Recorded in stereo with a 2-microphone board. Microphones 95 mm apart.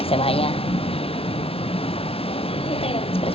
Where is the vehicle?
85° left; by 3.4 s 90° left.